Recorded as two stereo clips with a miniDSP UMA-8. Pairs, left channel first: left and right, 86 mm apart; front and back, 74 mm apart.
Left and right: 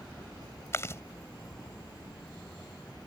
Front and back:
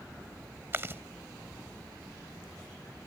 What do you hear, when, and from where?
0.7 s chewing: 135° left